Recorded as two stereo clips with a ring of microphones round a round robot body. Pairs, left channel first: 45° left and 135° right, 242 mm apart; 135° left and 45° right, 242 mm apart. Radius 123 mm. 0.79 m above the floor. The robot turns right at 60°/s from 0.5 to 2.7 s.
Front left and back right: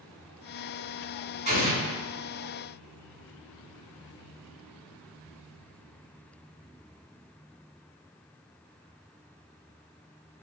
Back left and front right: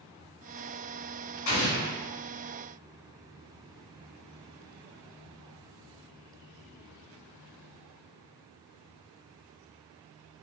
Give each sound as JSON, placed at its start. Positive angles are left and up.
{"t": 1.5, "sound": "an explosion", "azimuth_deg": 165, "distance_m": 1.7}